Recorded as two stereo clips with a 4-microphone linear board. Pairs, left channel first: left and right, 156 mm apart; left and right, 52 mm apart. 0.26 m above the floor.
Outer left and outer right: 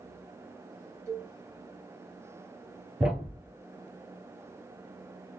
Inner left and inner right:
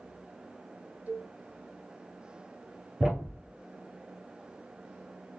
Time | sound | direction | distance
1.1 | a cowbell | 25° right (ahead or behind) | 1.7 m
3.0 | a thud | 5° right (ahead or behind) | 1.1 m